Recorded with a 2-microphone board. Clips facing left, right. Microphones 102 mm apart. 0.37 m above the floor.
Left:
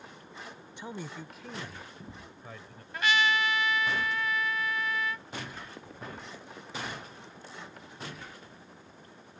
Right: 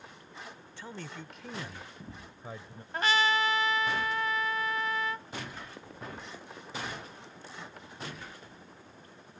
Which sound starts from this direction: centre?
A man speaking, at 0.8 s.